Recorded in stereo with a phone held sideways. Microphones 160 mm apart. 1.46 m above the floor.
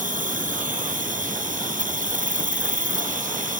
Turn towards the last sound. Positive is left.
turn(degrees=-60)  # may be behind; listen again after turning